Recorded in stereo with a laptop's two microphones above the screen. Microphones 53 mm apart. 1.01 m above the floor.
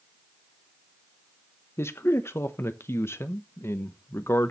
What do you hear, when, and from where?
1.8 s a man speaking: 50° left (ahead or behind), 0.9 m